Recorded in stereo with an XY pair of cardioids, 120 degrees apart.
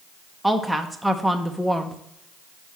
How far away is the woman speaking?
About 0.7 m.